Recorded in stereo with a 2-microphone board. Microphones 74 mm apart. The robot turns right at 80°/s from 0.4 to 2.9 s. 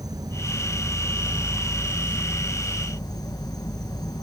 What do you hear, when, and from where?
0.0 s an insect: 105° right, 0.9 m; by 4.2 s 95° left, 0.9 m